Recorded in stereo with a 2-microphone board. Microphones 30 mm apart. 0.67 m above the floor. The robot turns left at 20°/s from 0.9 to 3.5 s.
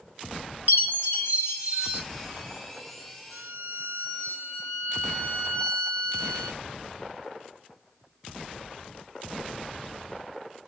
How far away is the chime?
About 1.7 m.